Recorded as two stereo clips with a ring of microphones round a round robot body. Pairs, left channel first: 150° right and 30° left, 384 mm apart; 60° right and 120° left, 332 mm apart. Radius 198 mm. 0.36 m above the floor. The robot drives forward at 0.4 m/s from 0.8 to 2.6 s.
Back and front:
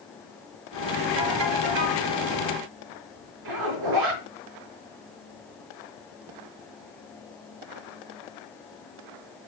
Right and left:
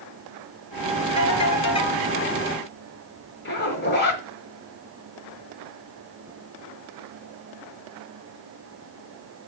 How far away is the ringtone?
About 4.5 m.